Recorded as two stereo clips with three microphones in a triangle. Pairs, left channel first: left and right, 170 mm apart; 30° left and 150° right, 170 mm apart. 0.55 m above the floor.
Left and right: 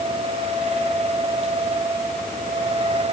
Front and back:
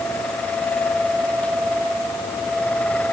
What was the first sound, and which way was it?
Only background noise.